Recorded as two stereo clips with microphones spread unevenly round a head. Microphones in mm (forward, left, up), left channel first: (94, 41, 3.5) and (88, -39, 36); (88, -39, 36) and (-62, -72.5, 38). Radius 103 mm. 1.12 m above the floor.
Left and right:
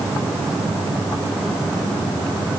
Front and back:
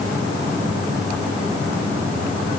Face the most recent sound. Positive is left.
No sound to turn to.